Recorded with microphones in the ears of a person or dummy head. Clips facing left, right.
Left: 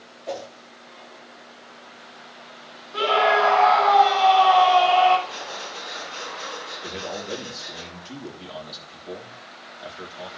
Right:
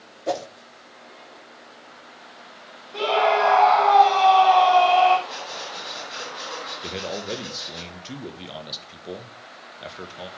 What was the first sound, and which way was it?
A whoosh, 60° right (ahead or behind).